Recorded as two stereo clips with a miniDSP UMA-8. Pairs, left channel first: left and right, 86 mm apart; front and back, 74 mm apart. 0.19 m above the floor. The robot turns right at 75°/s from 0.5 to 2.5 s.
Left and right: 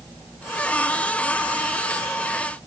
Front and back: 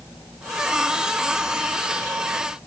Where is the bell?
No bell in this recording.